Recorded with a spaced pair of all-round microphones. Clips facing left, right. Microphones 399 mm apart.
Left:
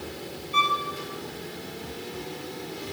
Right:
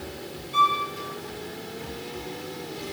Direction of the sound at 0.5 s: 25° right (ahead or behind).